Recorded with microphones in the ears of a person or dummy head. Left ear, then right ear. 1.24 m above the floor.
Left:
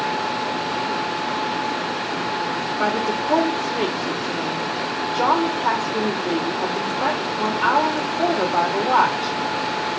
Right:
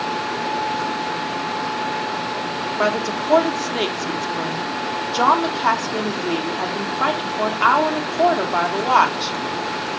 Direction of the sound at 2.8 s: 90° right.